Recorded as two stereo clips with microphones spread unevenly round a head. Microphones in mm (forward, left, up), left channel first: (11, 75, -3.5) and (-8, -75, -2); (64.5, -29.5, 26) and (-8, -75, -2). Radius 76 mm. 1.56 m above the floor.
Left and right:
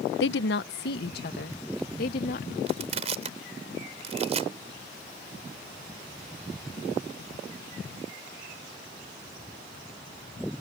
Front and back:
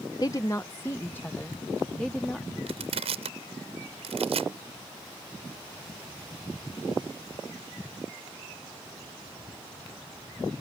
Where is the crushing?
145° right.